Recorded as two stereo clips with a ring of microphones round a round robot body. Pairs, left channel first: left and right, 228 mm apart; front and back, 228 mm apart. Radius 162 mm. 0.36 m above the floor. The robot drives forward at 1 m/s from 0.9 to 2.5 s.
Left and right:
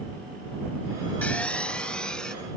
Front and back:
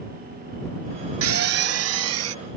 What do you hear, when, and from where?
1.2 s a drill: 175° left; by 2.3 s straight behind